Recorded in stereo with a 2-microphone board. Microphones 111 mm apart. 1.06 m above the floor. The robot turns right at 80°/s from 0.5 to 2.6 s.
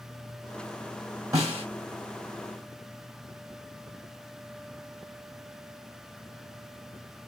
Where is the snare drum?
30° right (ahead or behind), 3 m; by 1.6 s 55° right (ahead or behind), 3 m.